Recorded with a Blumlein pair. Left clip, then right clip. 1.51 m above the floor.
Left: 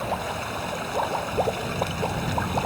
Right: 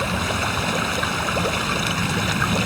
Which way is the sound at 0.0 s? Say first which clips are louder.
Right 5 dB; 65° right.